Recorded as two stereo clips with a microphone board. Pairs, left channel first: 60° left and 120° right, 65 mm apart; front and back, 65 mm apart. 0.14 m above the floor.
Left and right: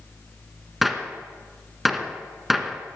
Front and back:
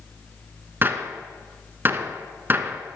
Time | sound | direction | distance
0.8 | a gunshot | 155° left | 0.9 m